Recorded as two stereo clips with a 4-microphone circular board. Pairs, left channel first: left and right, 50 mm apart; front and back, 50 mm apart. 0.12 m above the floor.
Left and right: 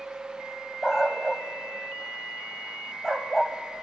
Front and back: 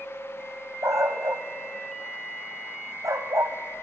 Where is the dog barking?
170° right, 1.6 m.